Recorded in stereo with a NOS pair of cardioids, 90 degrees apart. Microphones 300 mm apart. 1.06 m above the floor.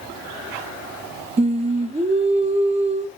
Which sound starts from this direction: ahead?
Singing, at 1.4 s.